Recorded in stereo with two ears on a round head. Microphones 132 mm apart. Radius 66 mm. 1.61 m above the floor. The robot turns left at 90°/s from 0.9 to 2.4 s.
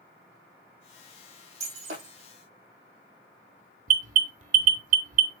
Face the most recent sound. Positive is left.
turn(degrees=-55)  # may be behind; listen again after turning